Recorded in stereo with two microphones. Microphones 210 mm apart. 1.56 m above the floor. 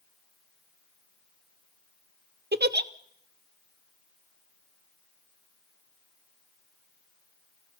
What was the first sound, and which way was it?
A giggle, 55° right (ahead or behind).